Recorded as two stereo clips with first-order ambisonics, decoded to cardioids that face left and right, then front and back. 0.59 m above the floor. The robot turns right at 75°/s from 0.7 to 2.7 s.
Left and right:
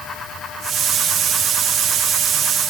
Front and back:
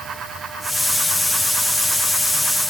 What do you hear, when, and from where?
Only background noise.